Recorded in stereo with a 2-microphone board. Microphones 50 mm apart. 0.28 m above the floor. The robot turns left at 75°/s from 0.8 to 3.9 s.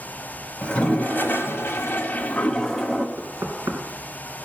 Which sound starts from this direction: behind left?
A toilet flushing, at 0.6 s.